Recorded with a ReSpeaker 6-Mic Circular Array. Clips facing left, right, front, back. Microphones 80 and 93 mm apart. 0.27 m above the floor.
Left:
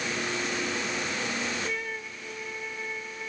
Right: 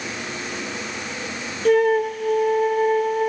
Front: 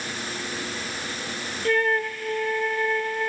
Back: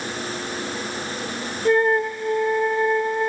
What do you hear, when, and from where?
1.6 s a flute: 110° right